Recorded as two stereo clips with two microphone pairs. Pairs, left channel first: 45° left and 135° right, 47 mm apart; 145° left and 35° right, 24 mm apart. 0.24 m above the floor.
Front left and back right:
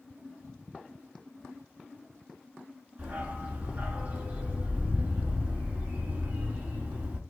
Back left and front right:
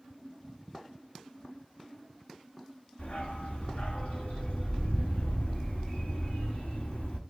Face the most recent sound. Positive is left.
turn(degrees=180)